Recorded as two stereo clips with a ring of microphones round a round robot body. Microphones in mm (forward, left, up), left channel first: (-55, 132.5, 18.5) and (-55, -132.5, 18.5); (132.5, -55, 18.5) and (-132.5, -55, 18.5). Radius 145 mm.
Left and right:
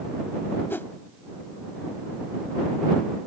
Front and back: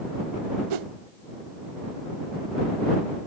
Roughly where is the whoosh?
Behind.